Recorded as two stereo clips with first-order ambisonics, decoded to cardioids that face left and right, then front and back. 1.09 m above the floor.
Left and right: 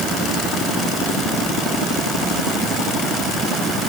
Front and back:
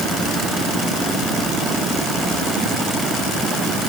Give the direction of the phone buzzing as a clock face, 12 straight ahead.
I don't hear a phone buzzing.